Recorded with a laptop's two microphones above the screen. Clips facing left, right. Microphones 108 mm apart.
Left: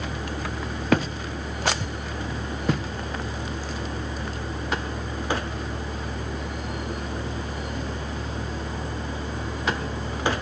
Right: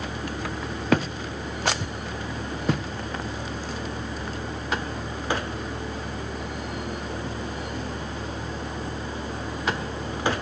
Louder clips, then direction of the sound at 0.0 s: Even; 55° left (ahead or behind).